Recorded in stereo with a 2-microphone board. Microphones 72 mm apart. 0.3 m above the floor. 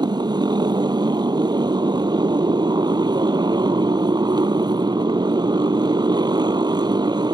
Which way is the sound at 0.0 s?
75° right (ahead or behind).